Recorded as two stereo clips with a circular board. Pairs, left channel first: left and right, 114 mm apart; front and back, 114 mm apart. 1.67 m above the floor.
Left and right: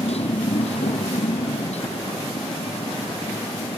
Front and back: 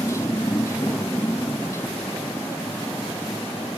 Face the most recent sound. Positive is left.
turn(degrees=70)